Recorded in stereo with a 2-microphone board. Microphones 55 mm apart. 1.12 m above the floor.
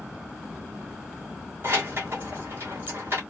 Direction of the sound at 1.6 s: 45° right (ahead or behind).